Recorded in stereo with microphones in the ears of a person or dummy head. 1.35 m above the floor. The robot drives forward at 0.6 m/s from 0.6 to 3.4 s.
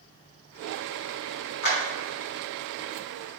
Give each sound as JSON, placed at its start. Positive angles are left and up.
{"t": 1.6, "sound": "a clap", "side_deg": 60, "distance_m": 3.0}